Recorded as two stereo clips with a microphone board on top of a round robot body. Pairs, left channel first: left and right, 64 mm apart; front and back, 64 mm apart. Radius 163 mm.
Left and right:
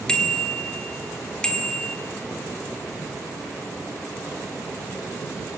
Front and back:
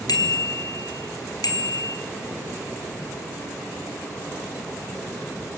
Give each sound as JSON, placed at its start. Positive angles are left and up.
{"t": 0.1, "sound": "a bicycle bell", "azimuth_deg": 10, "distance_m": 2.5}